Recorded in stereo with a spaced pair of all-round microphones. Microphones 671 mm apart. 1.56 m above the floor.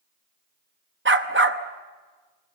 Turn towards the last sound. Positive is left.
turn(degrees=-15)  # may be behind; listen again after turning